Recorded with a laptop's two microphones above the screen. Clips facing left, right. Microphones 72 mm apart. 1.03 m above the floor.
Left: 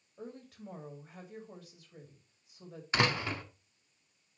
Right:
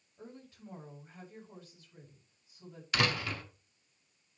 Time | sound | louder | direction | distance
0.2 | a woman speaking | left 4 dB | 75° left (ahead or behind) | 5 m
2.9 | a door slam | left 2 dB | 25° left (ahead or behind) | 1.8 m